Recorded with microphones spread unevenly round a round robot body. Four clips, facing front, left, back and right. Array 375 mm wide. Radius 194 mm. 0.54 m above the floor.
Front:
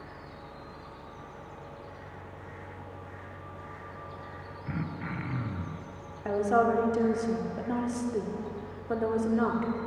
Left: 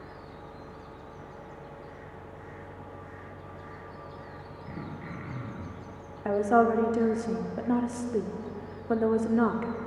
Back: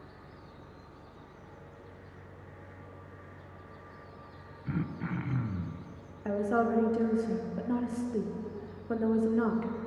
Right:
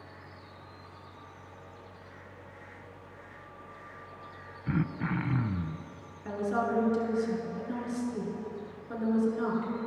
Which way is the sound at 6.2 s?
70° left.